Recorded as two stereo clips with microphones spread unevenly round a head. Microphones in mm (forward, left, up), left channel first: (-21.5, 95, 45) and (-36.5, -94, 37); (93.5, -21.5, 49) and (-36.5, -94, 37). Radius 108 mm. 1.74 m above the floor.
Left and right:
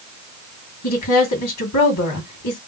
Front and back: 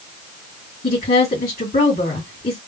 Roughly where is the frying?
No frying in this recording.